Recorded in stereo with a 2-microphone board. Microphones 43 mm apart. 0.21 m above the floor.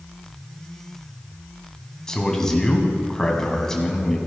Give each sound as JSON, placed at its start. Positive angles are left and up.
{"t": 2.1, "sound": "a man speaking", "side_deg": 15, "distance_m": 2.0}